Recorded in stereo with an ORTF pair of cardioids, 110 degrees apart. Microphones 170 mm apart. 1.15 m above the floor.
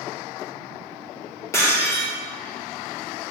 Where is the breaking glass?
15° left, 2.5 m.